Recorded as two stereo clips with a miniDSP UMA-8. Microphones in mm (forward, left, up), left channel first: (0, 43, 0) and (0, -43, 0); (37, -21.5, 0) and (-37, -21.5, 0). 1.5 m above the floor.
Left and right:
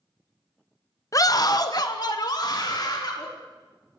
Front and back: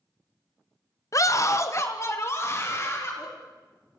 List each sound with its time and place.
1.1 s a scream: 40° left, 0.7 m; by 3.3 s 55° left, 4 m